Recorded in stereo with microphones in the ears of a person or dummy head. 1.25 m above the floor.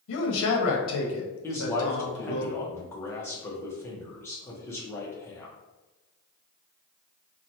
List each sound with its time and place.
0.1 s a man speaking: 80° left, 0.9 m
1.4 s a man speaking: 10° left (ahead or behind), 0.7 m